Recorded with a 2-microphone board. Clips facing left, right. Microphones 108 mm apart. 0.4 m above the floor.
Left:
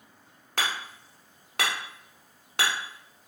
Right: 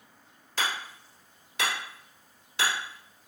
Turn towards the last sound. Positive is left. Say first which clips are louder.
# left 1 dB
turn(degrees=70)  # may be behind; listen again after turning